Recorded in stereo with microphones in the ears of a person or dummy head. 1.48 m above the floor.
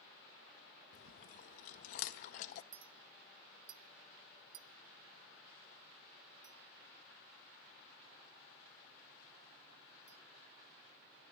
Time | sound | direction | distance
0.9 | chewing | 50° left (ahead or behind) | 0.6 m
2.7 | a clink | 55° right (ahead or behind) | 1.5 m